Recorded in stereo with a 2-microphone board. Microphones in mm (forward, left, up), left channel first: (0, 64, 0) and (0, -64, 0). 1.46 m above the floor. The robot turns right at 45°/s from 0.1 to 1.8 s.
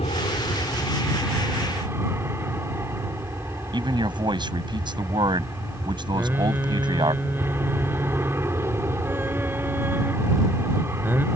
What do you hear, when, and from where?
0.0 s an aircraft: 125° left; by 11.3 s 160° right
3.7 s a man speaking: 35° right (ahead or behind)
6.1 s singing: 15° right (ahead or behind)